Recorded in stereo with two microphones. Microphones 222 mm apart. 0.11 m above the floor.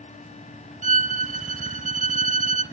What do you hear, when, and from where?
0.8 s a violin: 35° right (ahead or behind), 0.8 m